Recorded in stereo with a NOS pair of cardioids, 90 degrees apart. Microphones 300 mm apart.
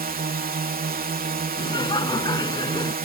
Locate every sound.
0.0 s a drone: 30° right
1.6 s laughter: 15° left